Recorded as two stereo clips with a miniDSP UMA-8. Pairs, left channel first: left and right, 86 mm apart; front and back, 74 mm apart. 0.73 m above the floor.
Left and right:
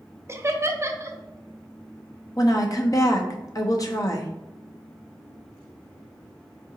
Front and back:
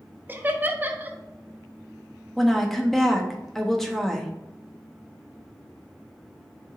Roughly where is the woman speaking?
Left.